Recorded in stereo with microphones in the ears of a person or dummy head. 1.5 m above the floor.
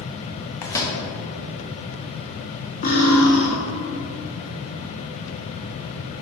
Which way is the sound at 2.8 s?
45° left (ahead or behind).